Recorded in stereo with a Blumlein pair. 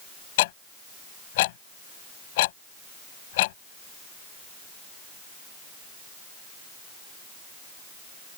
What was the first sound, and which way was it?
Ticking, 50° left.